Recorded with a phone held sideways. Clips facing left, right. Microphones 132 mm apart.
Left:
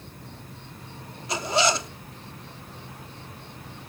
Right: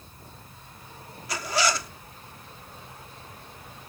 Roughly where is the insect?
Left.